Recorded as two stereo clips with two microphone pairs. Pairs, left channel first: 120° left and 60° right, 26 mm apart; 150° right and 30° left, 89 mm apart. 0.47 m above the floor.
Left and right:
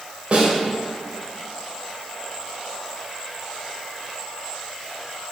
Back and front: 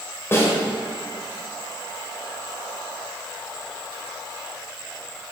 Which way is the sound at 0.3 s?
90° right.